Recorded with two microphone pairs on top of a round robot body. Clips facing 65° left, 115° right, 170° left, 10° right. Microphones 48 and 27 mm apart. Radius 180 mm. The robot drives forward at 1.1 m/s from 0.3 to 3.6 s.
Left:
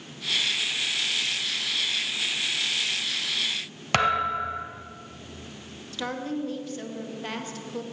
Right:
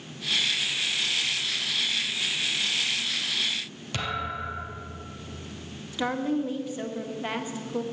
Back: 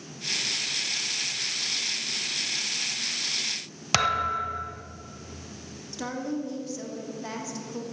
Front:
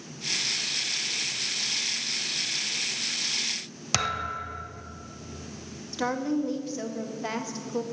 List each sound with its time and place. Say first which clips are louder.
3.9 s a thud: left 8 dB, back 5 dB; 100° left, 0.9 m
5.9 s a woman speaking: right 4 dB, front 4 dB; 60° right, 1.7 m